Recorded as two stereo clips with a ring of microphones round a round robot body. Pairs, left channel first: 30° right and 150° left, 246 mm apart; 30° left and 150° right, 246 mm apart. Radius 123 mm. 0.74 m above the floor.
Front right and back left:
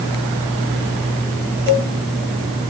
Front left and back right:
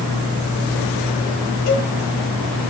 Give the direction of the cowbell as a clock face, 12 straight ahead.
10 o'clock.